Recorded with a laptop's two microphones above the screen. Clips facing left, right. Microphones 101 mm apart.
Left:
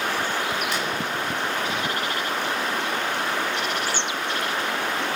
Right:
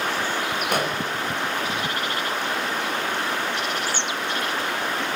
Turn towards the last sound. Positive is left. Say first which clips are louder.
# right 3 dB
turn(degrees=-55)  # may be behind; listen again after turning